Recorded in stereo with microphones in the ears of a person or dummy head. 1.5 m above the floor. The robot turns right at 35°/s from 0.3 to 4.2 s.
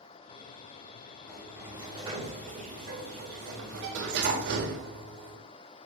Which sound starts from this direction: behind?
A sliding door, at 1.3 s.